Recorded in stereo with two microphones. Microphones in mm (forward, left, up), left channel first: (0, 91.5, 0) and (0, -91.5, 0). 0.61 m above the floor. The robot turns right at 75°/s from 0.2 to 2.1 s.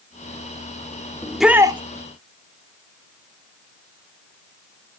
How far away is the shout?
About 1.0 m.